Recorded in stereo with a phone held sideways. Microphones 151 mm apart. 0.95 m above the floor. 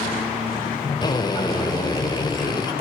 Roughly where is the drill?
Left.